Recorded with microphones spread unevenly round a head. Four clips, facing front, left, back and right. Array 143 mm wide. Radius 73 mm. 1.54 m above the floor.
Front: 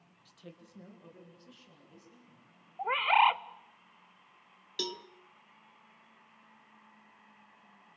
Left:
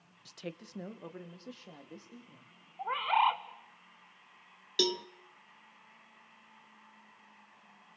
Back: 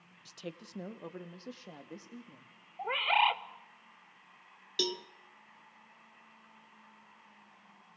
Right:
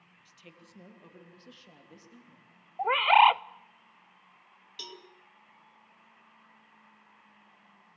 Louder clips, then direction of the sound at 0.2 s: Left 12 dB, back 8 dB; 120° left.